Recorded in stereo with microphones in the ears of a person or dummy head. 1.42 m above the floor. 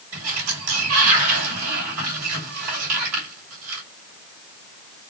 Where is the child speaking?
I don't hear a child speaking.